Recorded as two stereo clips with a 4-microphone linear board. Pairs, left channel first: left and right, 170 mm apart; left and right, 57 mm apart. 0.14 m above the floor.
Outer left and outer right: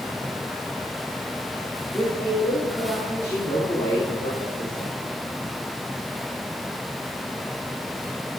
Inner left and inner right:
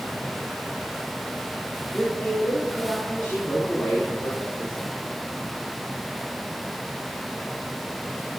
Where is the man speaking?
20° left (ahead or behind), 3.5 m.